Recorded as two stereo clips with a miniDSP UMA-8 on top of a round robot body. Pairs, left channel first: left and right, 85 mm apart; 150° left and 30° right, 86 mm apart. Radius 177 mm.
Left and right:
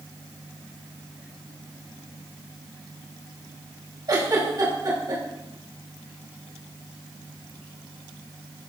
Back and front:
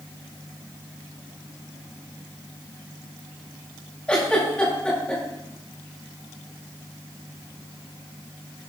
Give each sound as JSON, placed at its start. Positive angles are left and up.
{"t": 4.1, "sound": "a giggle", "azimuth_deg": -130, "distance_m": 4.0}